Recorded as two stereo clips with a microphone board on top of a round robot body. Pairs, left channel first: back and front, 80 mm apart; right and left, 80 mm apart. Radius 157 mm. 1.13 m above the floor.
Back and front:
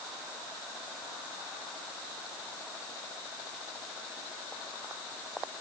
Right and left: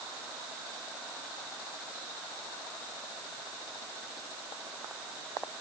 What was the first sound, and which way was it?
Only background noise.